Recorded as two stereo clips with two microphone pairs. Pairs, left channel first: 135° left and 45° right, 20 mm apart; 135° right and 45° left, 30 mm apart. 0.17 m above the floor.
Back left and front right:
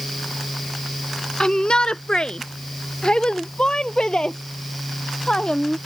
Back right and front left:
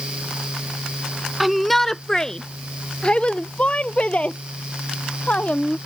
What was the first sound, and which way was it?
A shout, 130° left.